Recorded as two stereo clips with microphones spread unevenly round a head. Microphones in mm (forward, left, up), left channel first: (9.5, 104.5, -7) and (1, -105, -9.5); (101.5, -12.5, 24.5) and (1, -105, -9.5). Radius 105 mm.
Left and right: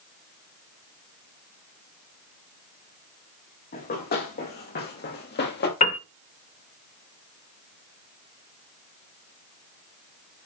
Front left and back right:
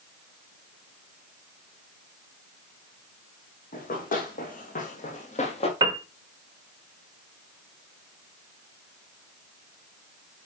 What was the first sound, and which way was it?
Running footsteps, 40° left.